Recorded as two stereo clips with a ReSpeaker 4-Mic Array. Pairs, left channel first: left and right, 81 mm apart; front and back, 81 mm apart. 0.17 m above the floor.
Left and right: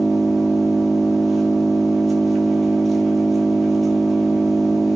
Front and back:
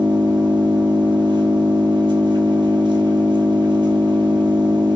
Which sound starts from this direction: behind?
An engine running, at 0.0 s.